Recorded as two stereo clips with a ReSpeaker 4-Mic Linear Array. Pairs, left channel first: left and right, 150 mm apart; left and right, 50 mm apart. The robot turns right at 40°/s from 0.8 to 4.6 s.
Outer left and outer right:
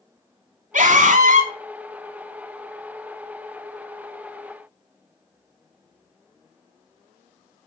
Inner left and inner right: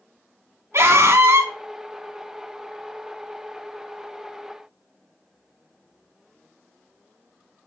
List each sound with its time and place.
0.7 s a scream: 60° right (ahead or behind), 2 m; by 1.5 s 55° right (ahead or behind), 2 m